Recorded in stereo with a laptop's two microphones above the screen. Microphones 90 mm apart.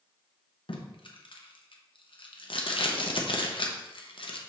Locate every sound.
0.7 s tape being pulled: 70° left (ahead or behind), 0.9 m